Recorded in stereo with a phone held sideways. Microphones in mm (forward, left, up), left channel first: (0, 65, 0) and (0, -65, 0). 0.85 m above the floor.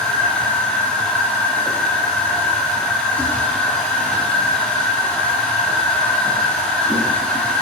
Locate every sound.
0.0 s a machine running: 5° left (ahead or behind), 3.5 m